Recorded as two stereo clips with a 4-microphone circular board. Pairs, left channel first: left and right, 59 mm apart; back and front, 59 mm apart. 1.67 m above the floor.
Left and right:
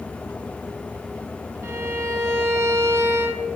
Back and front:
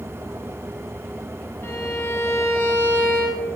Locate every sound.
1.6 s a violin: 130° right, 0.6 m